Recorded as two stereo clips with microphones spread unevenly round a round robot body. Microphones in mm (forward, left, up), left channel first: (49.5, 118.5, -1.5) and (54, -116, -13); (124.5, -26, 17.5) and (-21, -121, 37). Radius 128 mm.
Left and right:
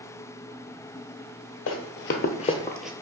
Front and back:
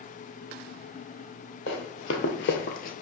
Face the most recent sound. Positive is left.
turn(degrees=-5)